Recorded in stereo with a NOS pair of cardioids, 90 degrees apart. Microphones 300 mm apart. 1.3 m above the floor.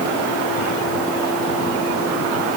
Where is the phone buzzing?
I don't hear a phone buzzing.